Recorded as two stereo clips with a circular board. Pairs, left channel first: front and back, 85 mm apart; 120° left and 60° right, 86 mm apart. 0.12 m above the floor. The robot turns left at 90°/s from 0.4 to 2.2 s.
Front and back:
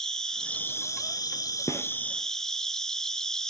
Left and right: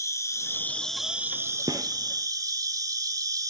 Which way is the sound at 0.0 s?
80° left.